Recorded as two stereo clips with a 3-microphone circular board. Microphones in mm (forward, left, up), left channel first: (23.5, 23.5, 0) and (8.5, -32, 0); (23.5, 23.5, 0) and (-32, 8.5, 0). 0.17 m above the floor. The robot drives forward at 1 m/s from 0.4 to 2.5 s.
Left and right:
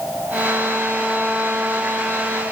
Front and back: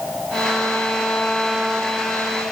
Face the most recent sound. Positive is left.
No sound to turn to.